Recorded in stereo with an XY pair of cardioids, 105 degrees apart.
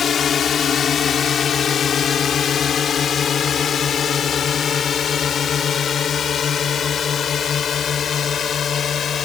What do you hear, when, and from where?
0.0 s a drone: 50° left